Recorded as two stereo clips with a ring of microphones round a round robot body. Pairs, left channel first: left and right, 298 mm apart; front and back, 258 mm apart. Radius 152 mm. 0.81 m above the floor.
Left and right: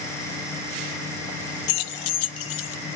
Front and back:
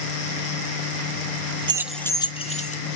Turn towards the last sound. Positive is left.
turn(degrees=60)